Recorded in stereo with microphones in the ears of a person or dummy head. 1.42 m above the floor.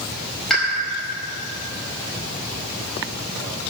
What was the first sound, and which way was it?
A pop, 5° left (ahead or behind).